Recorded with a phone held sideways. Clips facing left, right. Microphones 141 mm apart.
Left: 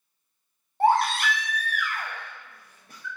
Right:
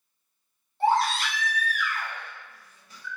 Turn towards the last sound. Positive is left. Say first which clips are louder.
# left 2 dB
turn(degrees=55)  # may be behind; listen again after turning